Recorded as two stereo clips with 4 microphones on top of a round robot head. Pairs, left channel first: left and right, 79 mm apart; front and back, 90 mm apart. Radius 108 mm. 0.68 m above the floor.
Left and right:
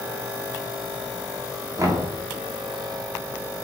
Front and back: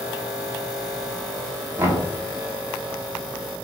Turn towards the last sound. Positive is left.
turn(degrees=-125)